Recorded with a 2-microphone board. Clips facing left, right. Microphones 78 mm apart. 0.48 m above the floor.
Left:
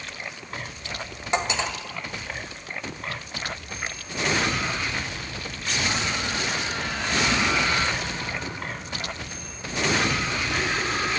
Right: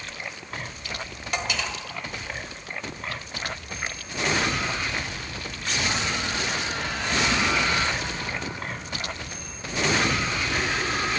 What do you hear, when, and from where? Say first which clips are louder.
0.8 s cutlery clinking: left 5 dB; 30° left (ahead or behind), 1.4 m